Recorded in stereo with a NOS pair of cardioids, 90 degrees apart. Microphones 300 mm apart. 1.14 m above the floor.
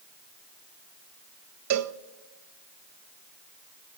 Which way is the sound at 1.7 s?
65° right.